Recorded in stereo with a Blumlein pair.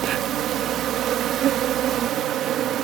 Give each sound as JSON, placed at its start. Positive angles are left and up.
{"t": 0.0, "sound": "an insect", "azimuth_deg": -30}